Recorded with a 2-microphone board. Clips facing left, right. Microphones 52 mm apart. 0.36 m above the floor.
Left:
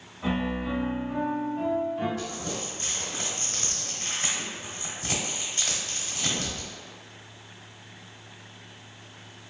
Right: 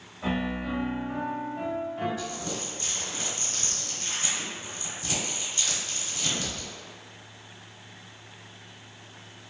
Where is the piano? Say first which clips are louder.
Left 1 dB; 15° right (ahead or behind), 1.2 m.